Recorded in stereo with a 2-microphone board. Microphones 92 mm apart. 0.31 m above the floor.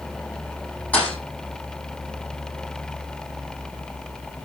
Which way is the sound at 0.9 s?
15° left (ahead or behind).